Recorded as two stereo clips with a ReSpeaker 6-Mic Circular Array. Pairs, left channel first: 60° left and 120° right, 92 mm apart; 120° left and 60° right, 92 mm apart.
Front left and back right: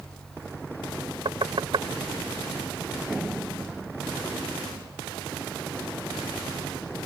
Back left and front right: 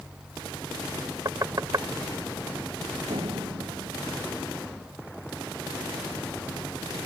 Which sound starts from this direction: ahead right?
A door slam, at 3.1 s.